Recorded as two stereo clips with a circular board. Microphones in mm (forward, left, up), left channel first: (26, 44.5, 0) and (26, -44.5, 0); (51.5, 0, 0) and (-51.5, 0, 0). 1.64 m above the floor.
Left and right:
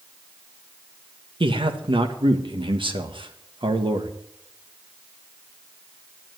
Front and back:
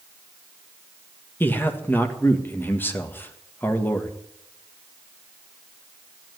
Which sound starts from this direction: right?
A man speaking, at 1.4 s.